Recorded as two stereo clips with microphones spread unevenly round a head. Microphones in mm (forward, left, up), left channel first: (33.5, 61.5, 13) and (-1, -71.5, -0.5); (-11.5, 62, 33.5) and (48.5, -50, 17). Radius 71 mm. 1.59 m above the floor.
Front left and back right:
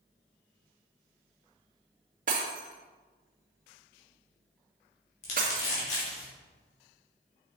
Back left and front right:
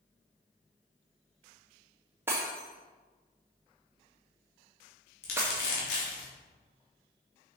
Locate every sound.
2.3 s breaking glass: 140° right, 1.6 m
5.2 s crumpling: 120° left, 3 m